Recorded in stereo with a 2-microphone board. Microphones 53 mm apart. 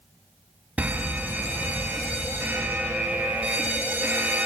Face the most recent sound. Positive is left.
turn(degrees=-30)  # may be behind; listen again after turning